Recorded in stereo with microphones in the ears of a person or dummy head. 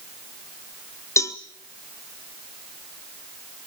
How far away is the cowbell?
About 0.7 m.